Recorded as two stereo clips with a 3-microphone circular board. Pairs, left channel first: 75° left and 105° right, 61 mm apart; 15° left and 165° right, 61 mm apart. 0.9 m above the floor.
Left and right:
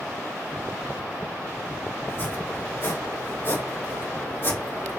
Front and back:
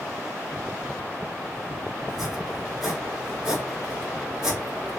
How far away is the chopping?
About 2.5 m.